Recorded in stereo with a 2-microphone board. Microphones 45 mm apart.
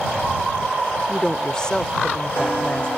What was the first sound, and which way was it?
A woman speaking, 10° left (ahead or behind).